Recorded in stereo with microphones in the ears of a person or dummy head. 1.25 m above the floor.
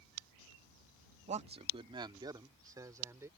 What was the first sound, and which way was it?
A man speaking, 35° right (ahead or behind).